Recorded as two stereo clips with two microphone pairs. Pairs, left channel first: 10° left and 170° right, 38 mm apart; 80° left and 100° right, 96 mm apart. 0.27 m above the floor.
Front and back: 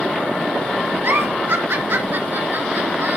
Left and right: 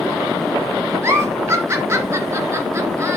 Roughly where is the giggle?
Behind right.